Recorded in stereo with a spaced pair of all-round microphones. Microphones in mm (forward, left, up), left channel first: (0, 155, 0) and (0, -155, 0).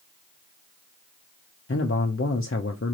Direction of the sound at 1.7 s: 45° left (ahead or behind).